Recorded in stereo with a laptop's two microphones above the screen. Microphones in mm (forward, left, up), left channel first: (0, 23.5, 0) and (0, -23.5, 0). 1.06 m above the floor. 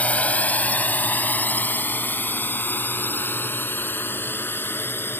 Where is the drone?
30° left (ahead or behind); by 5.2 s 50° left (ahead or behind).